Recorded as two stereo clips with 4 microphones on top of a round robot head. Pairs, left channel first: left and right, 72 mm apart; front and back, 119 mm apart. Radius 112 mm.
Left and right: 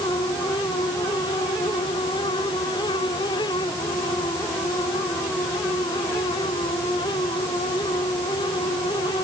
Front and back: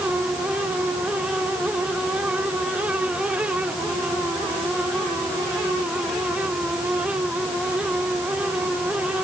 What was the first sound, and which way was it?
Only background noise.